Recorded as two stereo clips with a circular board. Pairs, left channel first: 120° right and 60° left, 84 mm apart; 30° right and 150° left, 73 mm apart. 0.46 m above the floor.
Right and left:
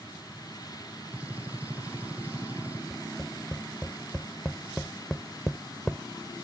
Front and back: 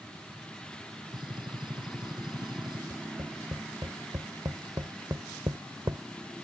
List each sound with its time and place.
1.1 s a gunshot: 135° left
2.9 s tapping: 155° left